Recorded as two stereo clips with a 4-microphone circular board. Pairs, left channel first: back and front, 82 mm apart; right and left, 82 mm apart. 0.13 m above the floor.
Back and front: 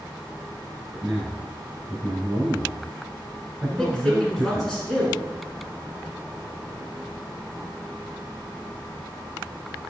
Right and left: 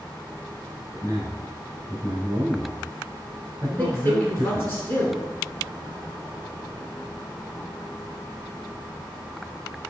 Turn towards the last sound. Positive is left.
turn(degrees=-100)